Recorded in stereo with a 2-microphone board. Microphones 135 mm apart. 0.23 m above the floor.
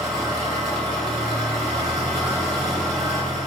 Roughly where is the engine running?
Centre.